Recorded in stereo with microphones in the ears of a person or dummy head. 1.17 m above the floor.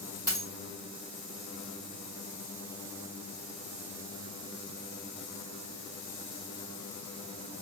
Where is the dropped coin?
25° right (ahead or behind), 1.9 m.